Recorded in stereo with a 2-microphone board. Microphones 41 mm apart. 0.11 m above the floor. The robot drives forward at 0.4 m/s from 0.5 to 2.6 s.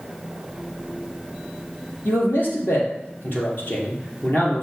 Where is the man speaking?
55° left (ahead or behind), 2.5 m.